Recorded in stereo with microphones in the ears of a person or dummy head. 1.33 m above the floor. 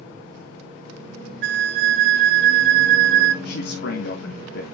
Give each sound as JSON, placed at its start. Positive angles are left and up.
{"t": 1.4, "sound": "a flute", "side_deg": -65, "distance_m": 0.5}
{"t": 3.5, "sound": "a man speaking", "side_deg": 65, "distance_m": 1.5}